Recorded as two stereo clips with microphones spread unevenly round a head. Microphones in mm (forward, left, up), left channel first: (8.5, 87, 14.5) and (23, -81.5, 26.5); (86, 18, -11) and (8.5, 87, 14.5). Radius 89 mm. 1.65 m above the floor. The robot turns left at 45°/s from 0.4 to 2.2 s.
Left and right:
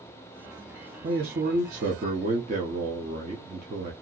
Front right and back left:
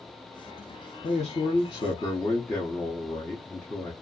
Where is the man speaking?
75° right, 0.7 m; by 3.9 s 125° right, 0.7 m.